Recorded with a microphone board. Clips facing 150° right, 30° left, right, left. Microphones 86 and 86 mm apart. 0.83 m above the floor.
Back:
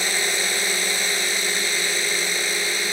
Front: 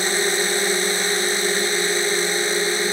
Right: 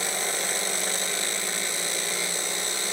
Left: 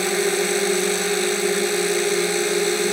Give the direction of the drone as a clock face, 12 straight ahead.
9 o'clock.